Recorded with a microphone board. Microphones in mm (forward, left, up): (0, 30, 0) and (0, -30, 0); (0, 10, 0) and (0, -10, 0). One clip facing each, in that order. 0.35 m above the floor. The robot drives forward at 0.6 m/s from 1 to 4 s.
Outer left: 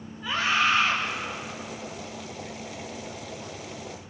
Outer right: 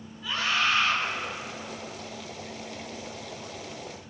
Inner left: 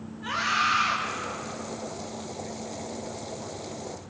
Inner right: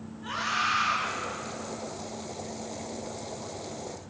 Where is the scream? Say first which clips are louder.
Outer left 3 dB, inner left 3 dB; 25° left (ahead or behind), 4 m.